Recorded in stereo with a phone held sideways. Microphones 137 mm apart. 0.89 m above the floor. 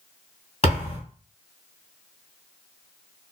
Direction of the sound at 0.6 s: 50° left (ahead or behind).